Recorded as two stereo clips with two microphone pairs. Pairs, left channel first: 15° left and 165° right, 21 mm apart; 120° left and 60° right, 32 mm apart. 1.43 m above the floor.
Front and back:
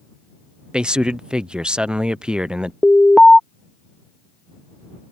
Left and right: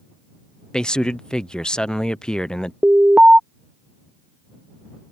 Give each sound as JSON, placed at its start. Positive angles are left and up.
{"t": 0.7, "sound": "a man speaking", "azimuth_deg": 175}
{"t": 2.8, "sound": "an alarm", "azimuth_deg": -15}